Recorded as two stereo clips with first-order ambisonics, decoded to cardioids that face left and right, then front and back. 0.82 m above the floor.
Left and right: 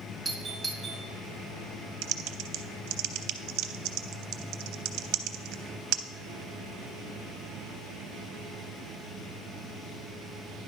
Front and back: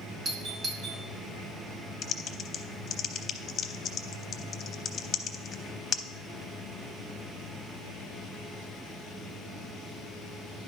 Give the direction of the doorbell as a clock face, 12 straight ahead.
5 o'clock.